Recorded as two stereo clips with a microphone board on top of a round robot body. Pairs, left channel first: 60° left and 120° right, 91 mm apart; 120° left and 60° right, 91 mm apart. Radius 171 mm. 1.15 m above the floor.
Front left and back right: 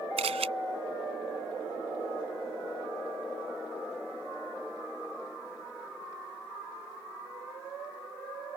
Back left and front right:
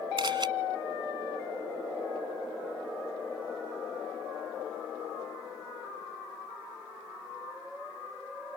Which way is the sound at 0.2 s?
105° right.